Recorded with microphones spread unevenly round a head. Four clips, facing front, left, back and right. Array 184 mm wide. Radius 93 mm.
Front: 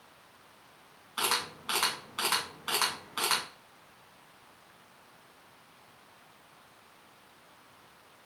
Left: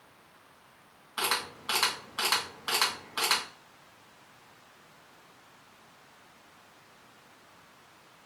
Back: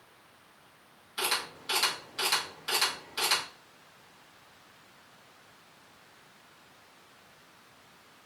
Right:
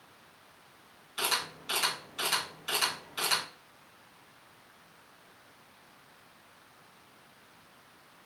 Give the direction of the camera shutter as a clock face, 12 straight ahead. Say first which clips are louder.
Left 2 dB, front 1 dB; 10 o'clock.